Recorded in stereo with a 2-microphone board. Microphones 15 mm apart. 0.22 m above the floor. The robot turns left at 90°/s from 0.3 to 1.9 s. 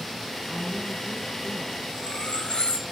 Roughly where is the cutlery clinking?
Left.